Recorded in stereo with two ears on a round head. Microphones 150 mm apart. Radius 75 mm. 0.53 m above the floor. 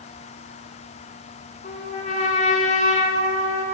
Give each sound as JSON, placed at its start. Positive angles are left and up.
{"t": 1.6, "sound": "a trumpet", "side_deg": 45, "distance_m": 1.0}